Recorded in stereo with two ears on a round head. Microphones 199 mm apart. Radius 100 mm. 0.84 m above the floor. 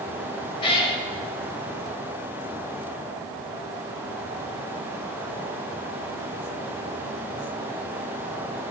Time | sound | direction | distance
0.6 | a cat meowing | 25° left (ahead or behind) | 1.2 m